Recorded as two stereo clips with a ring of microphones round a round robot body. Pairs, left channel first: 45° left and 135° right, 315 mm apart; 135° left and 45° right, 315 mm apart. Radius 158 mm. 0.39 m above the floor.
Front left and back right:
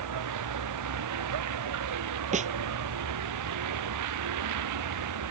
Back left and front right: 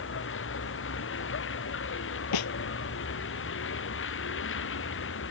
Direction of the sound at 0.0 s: 170° right.